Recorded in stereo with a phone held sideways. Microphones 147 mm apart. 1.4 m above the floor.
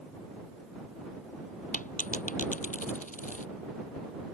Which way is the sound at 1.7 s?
60° left (ahead or behind).